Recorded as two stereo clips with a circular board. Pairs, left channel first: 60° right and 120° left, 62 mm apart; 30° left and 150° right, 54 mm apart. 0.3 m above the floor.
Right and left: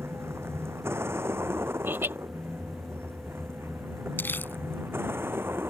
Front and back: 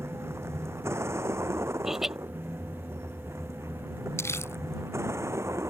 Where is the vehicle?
170° left; by 5.7 s 175° left.